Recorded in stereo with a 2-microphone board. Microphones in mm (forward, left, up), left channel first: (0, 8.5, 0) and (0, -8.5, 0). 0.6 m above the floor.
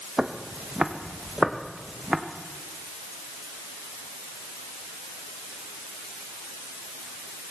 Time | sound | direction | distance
0.2 | footsteps | 70° right (ahead or behind) | 1.5 m